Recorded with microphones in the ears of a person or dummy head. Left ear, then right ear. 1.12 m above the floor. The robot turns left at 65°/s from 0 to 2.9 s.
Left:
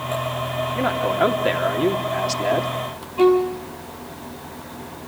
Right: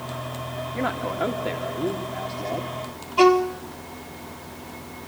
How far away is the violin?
About 1.2 m.